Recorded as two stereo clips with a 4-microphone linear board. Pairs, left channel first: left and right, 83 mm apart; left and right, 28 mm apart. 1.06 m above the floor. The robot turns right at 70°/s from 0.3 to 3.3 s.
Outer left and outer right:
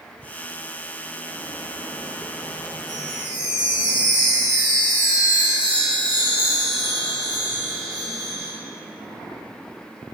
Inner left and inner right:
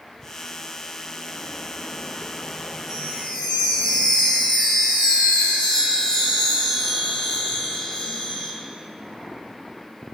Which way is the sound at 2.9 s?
Centre (ahead or behind).